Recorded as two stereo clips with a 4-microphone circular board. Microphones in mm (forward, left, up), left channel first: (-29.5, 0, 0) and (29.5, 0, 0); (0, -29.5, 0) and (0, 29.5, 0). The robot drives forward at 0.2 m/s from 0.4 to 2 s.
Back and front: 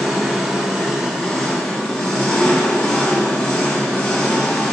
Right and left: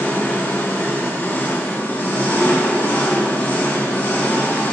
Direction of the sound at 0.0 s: 90° right.